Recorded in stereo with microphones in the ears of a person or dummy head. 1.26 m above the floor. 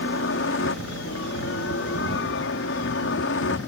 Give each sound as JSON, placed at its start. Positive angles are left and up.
{"t": 0.0, "sound": "a helicopter", "side_deg": 65}